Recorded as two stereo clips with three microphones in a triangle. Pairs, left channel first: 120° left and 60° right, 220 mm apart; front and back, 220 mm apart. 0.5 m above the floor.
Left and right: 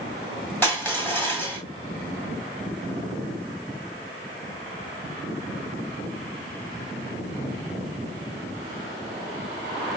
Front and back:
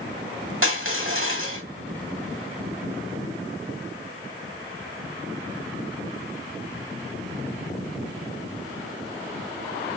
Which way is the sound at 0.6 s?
160° right.